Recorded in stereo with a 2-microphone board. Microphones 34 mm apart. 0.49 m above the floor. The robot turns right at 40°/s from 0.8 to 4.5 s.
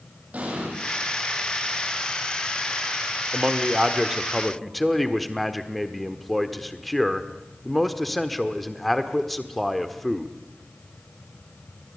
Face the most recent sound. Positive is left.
turn(degrees=5)